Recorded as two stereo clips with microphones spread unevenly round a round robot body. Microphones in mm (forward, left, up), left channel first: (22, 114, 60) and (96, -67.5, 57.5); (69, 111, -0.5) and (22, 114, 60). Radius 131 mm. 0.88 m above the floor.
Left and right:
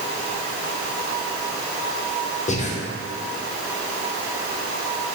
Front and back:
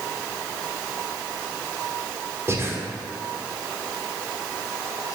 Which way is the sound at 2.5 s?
75° left.